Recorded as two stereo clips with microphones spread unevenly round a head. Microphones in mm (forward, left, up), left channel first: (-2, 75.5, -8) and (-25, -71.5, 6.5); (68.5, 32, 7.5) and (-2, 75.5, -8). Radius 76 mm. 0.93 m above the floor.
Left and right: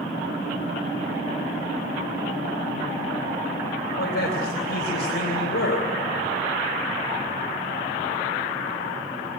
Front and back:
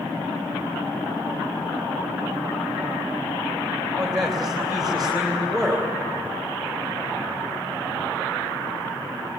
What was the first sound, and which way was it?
A man speaking, 65° left.